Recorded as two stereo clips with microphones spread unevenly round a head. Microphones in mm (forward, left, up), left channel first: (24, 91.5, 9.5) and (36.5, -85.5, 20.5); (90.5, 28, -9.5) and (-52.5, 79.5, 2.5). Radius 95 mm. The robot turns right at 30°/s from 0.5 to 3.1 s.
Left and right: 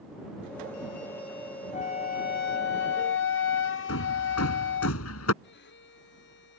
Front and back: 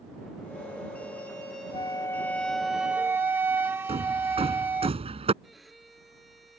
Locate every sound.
1.7 s a flute: 45° left; by 4.9 s 85° left
3.9 s hammering: 110° left
5.4 s a violin: 70° left